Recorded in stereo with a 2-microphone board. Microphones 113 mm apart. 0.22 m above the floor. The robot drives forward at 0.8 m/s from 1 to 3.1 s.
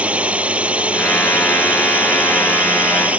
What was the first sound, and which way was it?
A drone, 10° right (ahead or behind).